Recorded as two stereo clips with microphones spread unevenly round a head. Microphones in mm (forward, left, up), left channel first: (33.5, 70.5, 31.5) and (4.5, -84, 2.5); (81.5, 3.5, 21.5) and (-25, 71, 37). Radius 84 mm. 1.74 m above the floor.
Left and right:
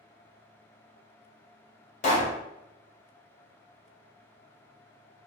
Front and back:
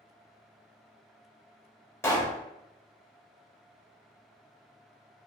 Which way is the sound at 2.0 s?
40° left.